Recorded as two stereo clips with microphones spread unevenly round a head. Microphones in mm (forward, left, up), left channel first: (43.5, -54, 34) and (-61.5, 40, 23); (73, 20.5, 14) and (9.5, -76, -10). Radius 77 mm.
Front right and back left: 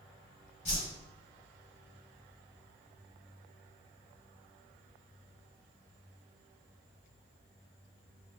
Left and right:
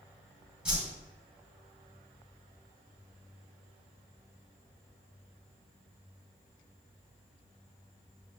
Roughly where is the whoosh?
Ahead right.